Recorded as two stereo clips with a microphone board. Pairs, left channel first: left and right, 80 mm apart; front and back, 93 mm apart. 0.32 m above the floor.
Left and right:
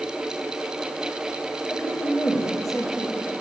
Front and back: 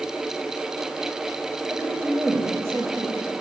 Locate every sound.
1.7 s a woman speaking: 175° right, 1.6 m